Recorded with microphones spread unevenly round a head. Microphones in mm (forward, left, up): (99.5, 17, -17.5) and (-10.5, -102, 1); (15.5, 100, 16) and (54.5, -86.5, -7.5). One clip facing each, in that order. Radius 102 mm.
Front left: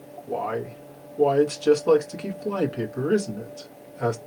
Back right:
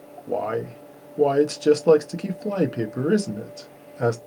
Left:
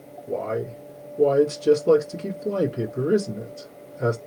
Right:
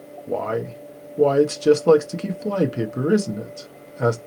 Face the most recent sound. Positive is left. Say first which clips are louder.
# back right 3 dB, right 2 dB
turn(degrees=-85)